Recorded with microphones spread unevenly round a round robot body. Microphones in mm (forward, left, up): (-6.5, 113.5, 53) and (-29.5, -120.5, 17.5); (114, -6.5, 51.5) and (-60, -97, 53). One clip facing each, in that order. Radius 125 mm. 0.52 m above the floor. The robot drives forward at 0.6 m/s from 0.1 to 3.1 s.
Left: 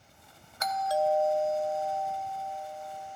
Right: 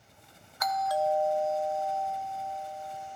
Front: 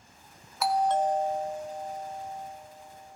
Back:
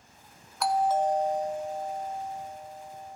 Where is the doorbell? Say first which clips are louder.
Left 1 dB, even; 105° left, 1.1 m; by 3.2 s 165° left, 2.0 m.